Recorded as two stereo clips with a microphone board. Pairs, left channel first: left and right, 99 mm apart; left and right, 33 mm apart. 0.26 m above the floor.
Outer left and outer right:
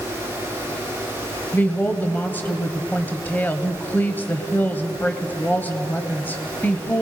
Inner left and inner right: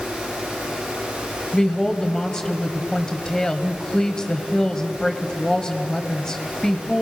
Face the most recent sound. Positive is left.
turn(degrees=20)  # may be behind; listen again after turning